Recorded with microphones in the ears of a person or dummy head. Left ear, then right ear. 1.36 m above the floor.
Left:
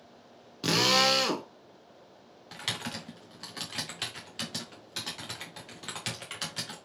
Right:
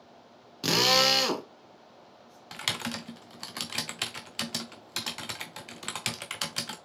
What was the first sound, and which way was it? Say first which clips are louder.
A drill: right 1 dB; 5° right (ahead or behind).